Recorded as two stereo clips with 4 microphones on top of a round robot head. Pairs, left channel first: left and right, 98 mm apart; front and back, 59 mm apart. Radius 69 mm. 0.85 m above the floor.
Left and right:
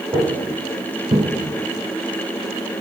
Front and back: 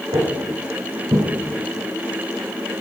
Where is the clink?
I don't hear a clink.